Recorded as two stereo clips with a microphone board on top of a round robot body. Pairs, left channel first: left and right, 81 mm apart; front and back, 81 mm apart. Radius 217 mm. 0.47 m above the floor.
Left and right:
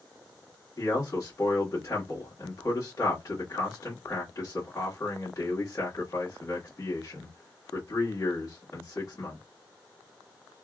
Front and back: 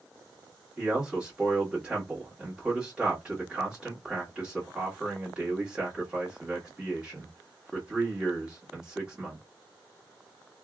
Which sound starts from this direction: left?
A man speaking, at 0.8 s.